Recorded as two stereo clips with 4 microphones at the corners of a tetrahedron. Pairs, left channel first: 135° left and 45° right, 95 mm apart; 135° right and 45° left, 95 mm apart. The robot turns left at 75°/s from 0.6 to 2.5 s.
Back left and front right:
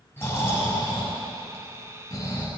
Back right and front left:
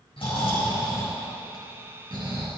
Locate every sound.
0.2 s snoring: 160° right, 6.5 m; by 2.5 s 60° left, 6.5 m